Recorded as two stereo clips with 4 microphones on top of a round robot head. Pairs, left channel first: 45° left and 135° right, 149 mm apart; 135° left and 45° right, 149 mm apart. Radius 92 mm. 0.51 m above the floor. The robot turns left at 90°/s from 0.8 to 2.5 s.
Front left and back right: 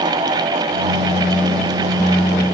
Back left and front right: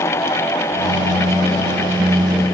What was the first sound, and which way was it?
Only background noise.